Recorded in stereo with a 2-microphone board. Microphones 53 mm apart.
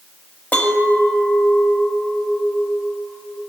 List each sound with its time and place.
0.5 s a clink: 30° left (ahead or behind), 1.3 m